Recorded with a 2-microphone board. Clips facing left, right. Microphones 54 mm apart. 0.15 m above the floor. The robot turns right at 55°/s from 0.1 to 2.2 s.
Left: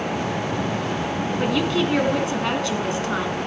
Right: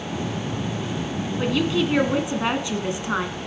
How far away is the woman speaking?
About 1.5 m.